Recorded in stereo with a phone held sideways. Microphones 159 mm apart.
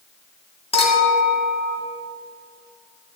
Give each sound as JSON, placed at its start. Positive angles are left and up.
{"t": 0.7, "sound": "a clink", "side_deg": 35, "distance_m": 1.5}